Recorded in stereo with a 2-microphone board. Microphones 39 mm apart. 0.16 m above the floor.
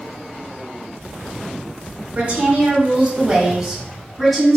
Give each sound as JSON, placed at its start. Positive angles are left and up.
{"t": 2.1, "sound": "a woman speaking", "side_deg": -30, "distance_m": 1.9}